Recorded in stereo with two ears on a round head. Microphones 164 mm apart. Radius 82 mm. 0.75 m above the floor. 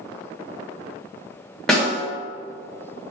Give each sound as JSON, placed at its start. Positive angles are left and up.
{"t": 1.7, "sound": "a snare drum", "side_deg": 5, "distance_m": 1.5}